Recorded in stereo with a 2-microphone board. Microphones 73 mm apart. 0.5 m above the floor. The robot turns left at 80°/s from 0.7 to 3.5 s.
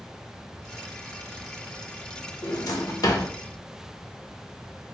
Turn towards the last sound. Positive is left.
turn(degrees=40)